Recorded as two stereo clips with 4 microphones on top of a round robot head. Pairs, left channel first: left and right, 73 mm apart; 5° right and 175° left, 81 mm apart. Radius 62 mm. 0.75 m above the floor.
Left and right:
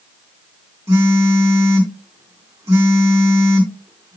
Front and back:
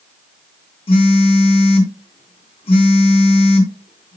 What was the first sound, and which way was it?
A phone buzzing, 25° right.